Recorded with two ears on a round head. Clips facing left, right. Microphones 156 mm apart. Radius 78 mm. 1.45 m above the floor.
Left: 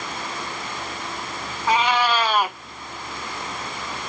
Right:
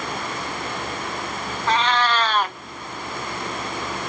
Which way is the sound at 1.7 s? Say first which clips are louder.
Left 1 dB; 10° left (ahead or behind).